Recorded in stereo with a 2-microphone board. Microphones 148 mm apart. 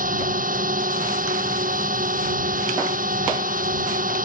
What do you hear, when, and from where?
0.0 s a drone: 70° right (ahead or behind)